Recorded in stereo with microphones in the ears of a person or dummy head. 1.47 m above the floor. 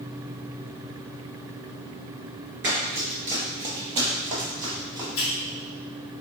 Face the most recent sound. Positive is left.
turn(degrees=70)  # may be behind; listen again after turning